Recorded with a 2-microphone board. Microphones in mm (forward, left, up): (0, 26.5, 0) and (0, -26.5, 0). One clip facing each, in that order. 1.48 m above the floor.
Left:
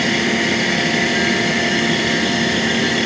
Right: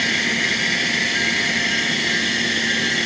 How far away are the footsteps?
I don't hear footsteps.